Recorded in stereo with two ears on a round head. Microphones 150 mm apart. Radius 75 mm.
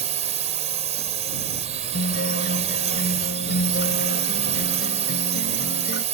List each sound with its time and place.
0.0 s a drone: 40° right (ahead or behind)
1.9 s a guitar: 75° left (ahead or behind)